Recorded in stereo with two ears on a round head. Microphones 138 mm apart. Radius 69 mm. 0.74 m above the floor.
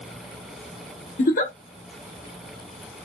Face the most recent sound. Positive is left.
turn(degrees=60)  # may be behind; listen again after turning